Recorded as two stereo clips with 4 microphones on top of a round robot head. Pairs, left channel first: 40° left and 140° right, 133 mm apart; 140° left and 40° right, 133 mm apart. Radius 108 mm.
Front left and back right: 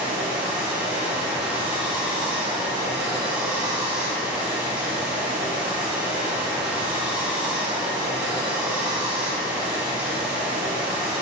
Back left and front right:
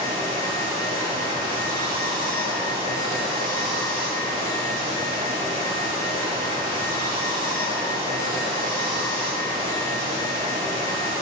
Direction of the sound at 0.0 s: 60° right.